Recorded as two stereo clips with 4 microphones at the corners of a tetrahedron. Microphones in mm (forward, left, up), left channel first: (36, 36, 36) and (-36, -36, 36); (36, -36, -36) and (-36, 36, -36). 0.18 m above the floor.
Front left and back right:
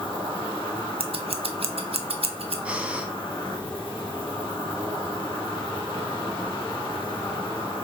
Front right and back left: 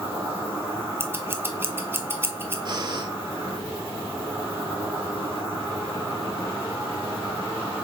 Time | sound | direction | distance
0.0 | an insect | 75° left | 2.5 m
1.0 | scissors | 160° right | 0.5 m
2.6 | breathing | 150° left | 0.6 m